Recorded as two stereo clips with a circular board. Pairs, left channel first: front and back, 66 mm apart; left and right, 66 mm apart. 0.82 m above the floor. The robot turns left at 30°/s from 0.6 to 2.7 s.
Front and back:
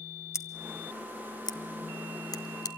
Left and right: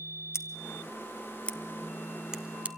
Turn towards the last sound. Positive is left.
turn(degrees=-20)